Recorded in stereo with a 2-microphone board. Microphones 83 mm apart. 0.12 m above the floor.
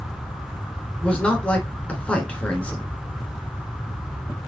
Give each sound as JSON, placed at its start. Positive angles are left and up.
{"t": 1.0, "sound": "a man speaking", "side_deg": 15, "distance_m": 1.4}